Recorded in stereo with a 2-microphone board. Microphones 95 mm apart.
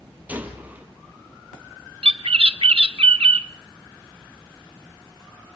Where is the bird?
75° right (ahead or behind), 0.6 m.